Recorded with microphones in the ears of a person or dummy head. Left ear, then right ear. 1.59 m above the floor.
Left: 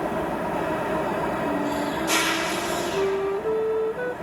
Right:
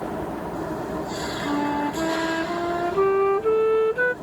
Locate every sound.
0.0 s an engine running: 80° left
1.4 s a flute: 40° right (ahead or behind)